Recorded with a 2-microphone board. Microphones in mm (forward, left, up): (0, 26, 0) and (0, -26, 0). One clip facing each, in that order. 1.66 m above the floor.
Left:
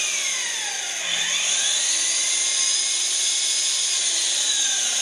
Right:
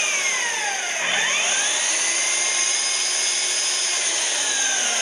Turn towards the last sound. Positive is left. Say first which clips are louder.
# right 5 dB
turn(degrees=-40)  # may be behind; listen again after turning